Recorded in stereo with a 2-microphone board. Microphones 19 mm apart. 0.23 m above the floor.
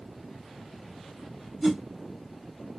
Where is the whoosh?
5° right (ahead or behind), 2.5 m.